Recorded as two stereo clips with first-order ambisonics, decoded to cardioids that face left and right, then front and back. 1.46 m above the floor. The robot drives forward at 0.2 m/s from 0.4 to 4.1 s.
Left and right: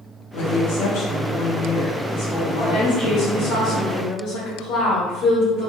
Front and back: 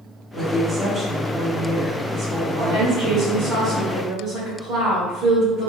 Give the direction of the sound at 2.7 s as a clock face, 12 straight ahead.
8 o'clock.